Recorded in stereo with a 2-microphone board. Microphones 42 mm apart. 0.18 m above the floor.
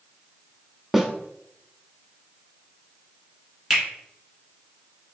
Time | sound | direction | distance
0.9 | a snare drum | 5° right (ahead or behind) | 0.6 m
3.7 | a finger snap | centre (ahead or behind) | 1.6 m